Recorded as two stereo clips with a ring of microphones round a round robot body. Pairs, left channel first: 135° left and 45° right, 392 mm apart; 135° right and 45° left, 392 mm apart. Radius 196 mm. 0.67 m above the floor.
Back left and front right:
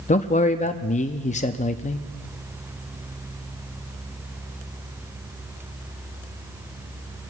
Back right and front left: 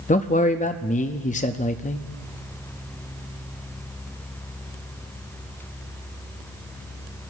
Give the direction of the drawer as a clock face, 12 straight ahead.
No drawer in this recording.